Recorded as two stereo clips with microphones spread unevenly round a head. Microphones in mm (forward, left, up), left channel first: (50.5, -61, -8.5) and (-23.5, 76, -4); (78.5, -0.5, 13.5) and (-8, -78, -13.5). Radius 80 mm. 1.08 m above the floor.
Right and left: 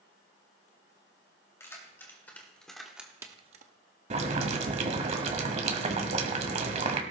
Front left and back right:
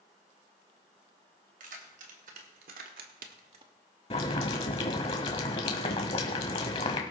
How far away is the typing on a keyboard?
I don't hear typing on a keyboard.